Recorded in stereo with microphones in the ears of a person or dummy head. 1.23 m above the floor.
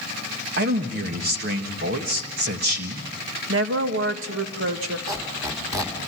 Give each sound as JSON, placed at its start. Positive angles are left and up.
{"t": 0.6, "sound": "a man speaking", "side_deg": -50, "distance_m": 1.7}
{"t": 3.5, "sound": "a woman speaking", "side_deg": -65, "distance_m": 1.8}
{"t": 5.1, "sound": "a squeak", "side_deg": -20, "distance_m": 2.5}